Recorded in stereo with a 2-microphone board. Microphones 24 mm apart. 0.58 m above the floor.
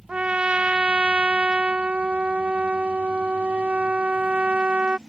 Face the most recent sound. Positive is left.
turn(degrees=-60)  # may be behind; listen again after turning